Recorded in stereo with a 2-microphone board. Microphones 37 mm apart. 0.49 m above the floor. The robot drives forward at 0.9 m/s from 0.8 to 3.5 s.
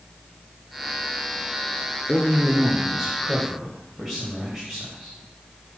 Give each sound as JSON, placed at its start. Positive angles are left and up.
{"t": 2.1, "sound": "a man speaking", "side_deg": 0, "distance_m": 0.9}